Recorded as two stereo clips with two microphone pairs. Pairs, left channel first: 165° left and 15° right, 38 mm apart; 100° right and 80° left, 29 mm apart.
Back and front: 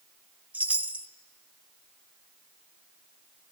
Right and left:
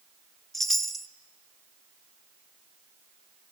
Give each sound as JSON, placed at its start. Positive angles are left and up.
{"t": 0.5, "sound": "a chime", "azimuth_deg": -25, "distance_m": 0.7}